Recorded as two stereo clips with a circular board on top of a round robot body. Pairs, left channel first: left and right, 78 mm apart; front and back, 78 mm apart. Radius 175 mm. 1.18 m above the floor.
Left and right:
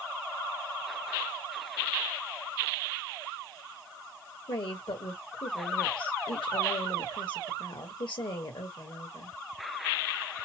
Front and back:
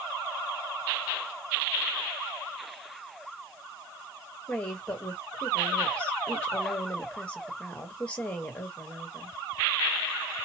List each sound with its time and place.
4.5 s a woman speaking: 75° left, 1.4 m